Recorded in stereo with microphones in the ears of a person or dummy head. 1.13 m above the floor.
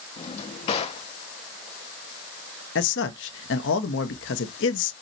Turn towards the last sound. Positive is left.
turn(degrees=55)  # may be behind; listen again after turning